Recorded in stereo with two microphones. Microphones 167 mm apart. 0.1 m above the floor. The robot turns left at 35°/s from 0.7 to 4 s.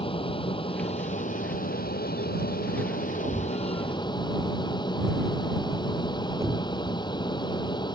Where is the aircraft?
145° left; by 8.0 s 30° left.